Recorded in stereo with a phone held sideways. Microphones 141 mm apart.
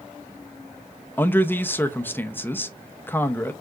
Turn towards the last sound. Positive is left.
turn(degrees=15)  # may be behind; listen again after turning